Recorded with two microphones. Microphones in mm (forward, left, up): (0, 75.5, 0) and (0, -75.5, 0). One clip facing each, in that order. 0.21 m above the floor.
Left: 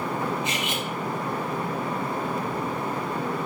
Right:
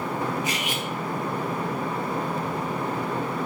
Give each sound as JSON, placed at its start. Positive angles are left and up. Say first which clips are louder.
{"t": 0.4, "sound": "cutlery clinking", "louder": "even", "side_deg": 25, "distance_m": 0.8}